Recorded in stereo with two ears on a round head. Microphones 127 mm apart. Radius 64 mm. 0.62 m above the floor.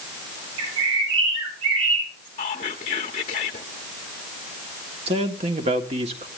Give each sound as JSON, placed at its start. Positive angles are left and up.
{"t": 0.6, "sound": "a bird", "side_deg": -40, "distance_m": 4.5}
{"t": 2.4, "sound": "whispering", "side_deg": 40, "distance_m": 1.0}
{"t": 5.1, "sound": "a man speaking", "side_deg": -40, "distance_m": 1.7}